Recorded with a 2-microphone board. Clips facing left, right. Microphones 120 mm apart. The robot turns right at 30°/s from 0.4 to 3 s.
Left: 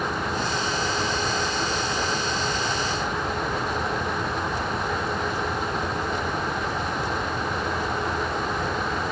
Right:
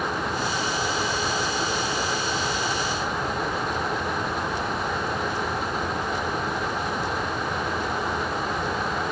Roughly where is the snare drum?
No snare drum in this recording.